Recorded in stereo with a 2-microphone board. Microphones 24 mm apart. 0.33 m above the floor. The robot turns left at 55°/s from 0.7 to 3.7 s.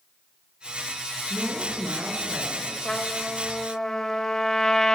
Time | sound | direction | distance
1.3 | a woman speaking | 65° right | 5 m
2.9 | a trumpet | 85° left | 1.5 m